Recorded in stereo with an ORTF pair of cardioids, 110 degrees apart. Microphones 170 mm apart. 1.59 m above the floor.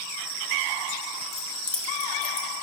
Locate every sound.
1.3 s keys jangling: straight ahead, 1.5 m; by 2.5 s 10° left, 2.0 m